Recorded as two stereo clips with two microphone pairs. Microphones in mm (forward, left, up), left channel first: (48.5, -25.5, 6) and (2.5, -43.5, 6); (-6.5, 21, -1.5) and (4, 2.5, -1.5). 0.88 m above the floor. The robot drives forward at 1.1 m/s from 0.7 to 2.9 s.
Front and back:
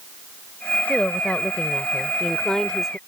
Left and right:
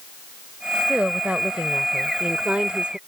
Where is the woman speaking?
35° right; by 3.0 s 60° right.